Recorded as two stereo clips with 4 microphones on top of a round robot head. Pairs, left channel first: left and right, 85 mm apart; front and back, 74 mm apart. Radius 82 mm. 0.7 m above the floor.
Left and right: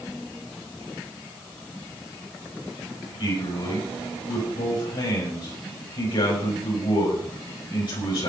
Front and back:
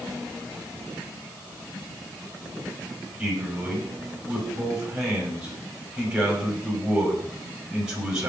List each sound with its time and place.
3.2 s a man speaking: 100° left, 6 m